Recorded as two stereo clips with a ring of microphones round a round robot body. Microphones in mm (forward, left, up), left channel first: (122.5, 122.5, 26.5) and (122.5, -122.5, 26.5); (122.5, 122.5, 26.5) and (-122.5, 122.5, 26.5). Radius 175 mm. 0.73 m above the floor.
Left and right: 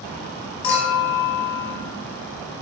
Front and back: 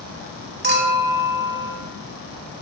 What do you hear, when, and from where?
0.6 s a clink: 125° left, 0.8 m